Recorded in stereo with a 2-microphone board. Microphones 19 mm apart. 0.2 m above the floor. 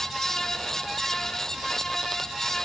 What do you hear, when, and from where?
Only background noise.